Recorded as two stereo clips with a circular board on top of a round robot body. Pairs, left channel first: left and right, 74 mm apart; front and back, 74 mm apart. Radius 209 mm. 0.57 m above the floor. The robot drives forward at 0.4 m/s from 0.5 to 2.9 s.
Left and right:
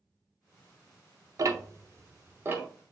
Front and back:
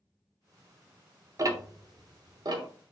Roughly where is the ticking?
Behind right.